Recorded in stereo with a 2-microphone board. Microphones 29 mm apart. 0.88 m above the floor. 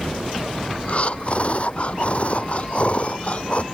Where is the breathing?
45° left (ahead or behind).